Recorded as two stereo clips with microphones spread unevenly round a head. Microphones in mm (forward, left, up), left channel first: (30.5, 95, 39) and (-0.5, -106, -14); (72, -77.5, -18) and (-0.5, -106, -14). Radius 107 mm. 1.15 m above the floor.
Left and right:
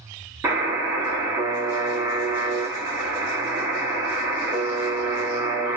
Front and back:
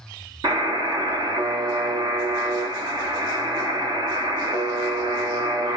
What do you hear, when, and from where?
0.4 s a buzzer: 175° left, 0.8 m